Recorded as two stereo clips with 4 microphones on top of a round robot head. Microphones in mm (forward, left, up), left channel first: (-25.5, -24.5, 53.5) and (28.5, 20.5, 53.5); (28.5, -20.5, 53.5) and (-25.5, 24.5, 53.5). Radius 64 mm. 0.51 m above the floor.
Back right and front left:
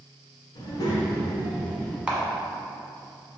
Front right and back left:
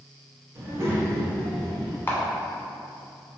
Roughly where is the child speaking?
Behind.